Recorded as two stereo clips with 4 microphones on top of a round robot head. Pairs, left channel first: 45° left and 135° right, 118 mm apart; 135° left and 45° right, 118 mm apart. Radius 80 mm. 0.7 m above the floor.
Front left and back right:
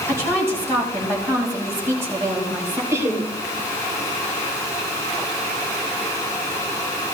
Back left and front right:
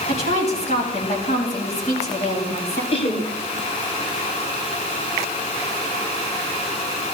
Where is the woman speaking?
160° left, 5 m.